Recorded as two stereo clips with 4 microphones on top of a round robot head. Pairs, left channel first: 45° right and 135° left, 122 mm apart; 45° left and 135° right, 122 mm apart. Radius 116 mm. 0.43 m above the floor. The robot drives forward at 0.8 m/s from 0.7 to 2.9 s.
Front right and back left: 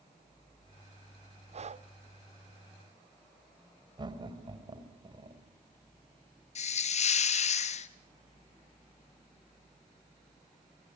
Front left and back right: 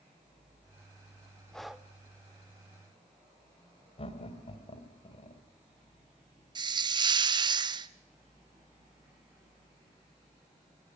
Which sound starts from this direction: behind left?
Breathing, at 1.5 s.